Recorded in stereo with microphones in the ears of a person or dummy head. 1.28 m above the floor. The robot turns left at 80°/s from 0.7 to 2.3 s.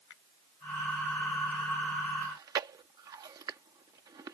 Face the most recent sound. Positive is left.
turn(degrees=-20)  # may be behind; listen again after turning